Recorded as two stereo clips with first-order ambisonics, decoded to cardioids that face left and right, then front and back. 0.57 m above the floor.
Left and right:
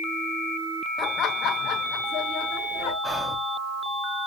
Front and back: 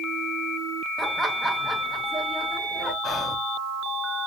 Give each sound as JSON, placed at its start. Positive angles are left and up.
{"t": 1.0, "sound": "laughter", "azimuth_deg": 110, "distance_m": 0.6}
{"t": 3.0, "sound": "whispering", "azimuth_deg": -20, "distance_m": 0.7}